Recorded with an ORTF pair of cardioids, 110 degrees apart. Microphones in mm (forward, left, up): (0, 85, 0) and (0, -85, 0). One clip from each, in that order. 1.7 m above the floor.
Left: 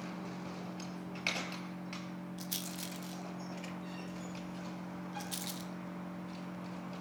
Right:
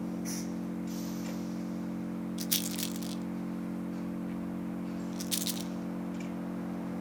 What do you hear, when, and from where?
0.0 s an engine running: 65° right, 1.8 m
2.4 s a rattle: 45° right, 0.8 m